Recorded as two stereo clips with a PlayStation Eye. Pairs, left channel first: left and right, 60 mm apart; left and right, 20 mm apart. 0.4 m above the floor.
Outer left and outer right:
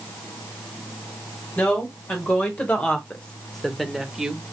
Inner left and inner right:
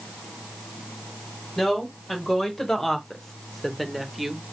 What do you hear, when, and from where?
1.6 s a woman speaking: 25° left (ahead or behind), 1.8 m; by 4.4 s 10° right (ahead or behind), 1.0 m